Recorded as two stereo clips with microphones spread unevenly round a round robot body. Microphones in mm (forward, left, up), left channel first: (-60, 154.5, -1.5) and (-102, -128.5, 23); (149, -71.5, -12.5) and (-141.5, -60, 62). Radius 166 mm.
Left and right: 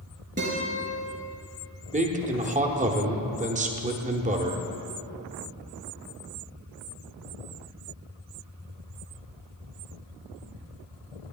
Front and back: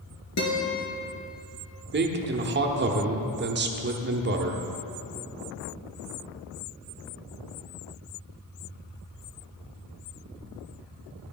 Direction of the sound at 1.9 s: 140° right.